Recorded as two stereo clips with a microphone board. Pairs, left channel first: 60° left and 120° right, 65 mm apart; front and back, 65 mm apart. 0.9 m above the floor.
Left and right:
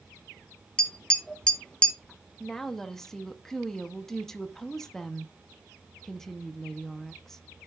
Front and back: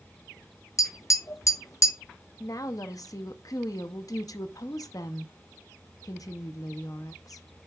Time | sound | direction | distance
0.8 | tapping | 15° right | 0.9 m
2.4 | a woman speaking | 25° right | 0.8 m